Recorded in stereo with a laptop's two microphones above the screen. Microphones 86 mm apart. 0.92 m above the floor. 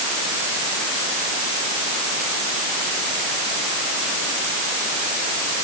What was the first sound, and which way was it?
Only background noise.